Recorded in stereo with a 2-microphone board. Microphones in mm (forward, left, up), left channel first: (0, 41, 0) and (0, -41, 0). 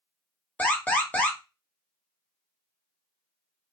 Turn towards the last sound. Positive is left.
turn(degrees=20)  # may be behind; listen again after turning